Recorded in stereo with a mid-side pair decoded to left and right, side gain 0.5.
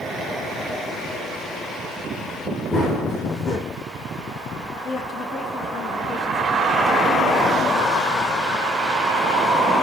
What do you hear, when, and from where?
2.7 s running footsteps: 30° left, 5.5 m
4.8 s a woman speaking: 35° left, 6.5 m